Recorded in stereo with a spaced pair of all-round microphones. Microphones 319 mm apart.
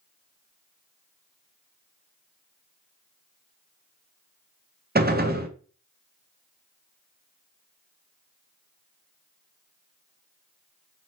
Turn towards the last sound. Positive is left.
turn(degrees=-30)  # may be behind; listen again after turning